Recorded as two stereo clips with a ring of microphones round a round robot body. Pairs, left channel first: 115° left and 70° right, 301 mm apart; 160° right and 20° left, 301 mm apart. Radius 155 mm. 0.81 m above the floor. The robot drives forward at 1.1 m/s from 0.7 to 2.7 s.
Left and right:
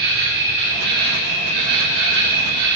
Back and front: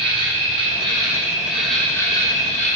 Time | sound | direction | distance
0.0 | an insect | 50° right | 3.5 m